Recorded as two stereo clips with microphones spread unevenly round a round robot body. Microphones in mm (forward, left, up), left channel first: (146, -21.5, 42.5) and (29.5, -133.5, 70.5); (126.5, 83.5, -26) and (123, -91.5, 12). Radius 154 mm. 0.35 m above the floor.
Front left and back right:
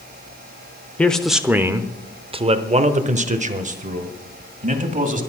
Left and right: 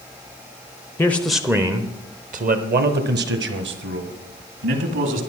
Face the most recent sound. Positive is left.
turn(degrees=-95)